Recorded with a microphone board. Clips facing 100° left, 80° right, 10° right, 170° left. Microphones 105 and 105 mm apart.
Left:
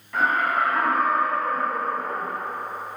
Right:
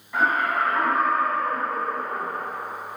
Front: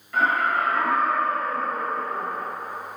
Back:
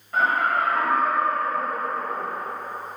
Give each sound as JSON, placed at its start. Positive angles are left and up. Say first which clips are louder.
{"t": 0.1, "sound": "laughter", "louder": "even, even", "azimuth_deg": -150, "distance_m": 1.2}